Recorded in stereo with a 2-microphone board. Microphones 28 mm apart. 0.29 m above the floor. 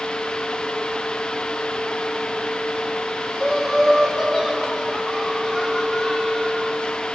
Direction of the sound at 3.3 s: 5° right (ahead or behind).